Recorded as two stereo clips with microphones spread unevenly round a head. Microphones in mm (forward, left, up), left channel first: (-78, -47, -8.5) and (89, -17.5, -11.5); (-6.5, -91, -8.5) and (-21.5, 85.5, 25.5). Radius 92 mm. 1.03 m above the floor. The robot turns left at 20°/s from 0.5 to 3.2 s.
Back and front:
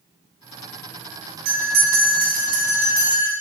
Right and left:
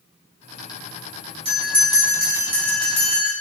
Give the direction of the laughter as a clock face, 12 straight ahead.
No laughter in this recording.